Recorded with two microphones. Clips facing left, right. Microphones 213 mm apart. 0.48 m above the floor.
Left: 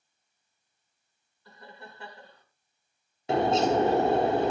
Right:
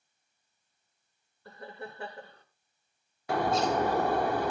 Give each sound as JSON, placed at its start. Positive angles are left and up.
{"t": 1.4, "sound": "laughter", "side_deg": -55, "distance_m": 1.6}
{"t": 3.3, "sound": "a bird", "side_deg": 25, "distance_m": 0.8}